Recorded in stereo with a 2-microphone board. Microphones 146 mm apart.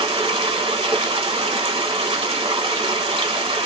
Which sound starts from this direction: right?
Running water, at 0.0 s.